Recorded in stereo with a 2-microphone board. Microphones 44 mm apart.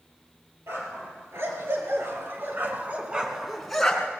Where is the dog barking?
85° right, 4 m; by 4.1 s 20° left (ahead or behind), 2 m.